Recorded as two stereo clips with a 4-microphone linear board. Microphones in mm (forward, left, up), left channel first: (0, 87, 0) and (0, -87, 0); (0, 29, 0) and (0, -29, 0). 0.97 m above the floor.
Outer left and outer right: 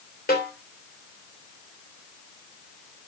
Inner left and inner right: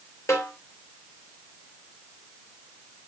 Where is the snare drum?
65° left (ahead or behind), 2.5 m.